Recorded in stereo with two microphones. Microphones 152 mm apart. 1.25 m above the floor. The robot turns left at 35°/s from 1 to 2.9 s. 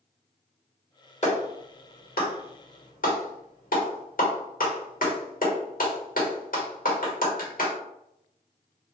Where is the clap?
45° left (ahead or behind), 1.1 m; by 7.8 s 70° left (ahead or behind), 1.1 m.